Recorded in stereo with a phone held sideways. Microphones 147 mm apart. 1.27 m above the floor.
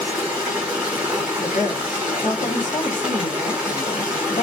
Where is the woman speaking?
60° left (ahead or behind), 0.8 m.